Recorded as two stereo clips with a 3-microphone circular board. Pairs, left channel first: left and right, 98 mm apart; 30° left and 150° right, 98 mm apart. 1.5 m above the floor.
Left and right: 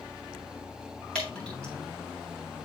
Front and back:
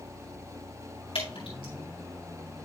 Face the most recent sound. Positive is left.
turn(degrees=5)